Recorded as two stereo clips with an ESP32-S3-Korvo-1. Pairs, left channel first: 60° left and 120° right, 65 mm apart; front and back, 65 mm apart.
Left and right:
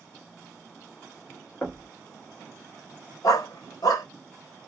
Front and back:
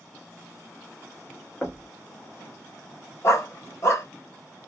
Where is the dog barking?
45° left, 0.8 m.